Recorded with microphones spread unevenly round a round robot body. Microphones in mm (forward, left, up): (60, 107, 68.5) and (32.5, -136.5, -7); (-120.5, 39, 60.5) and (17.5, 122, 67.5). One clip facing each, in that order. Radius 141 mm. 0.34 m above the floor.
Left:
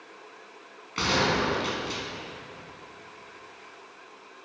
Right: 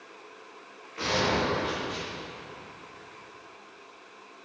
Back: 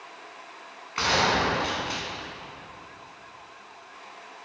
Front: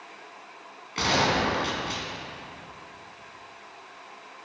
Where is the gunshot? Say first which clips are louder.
Left 1 dB, even; 85° left, 4.5 m.